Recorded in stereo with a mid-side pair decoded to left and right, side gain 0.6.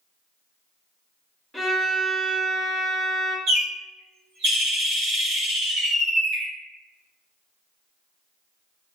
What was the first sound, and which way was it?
A violin, straight ahead.